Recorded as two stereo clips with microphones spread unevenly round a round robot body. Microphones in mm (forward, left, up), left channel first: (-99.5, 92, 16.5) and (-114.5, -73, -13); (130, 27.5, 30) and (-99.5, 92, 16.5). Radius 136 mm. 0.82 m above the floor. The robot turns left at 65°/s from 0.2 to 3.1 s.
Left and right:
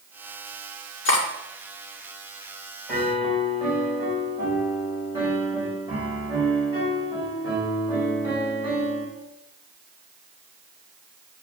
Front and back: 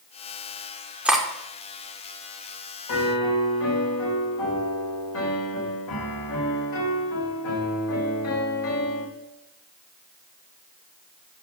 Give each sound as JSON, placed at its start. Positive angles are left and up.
{"t": 1.1, "sound": "cutlery clinking", "azimuth_deg": 80, "distance_m": 1.6}
{"t": 2.9, "sound": "a piano", "azimuth_deg": 0, "distance_m": 3.0}